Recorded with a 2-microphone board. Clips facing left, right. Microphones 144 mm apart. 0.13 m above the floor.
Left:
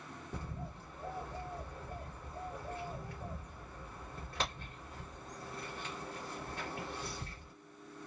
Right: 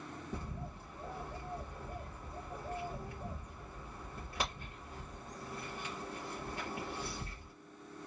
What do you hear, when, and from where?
0.3 s a bird: 10° right (ahead or behind), 3 m